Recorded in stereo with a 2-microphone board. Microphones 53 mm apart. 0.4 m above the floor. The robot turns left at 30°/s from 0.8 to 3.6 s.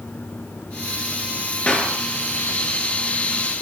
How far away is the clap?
About 5.5 m.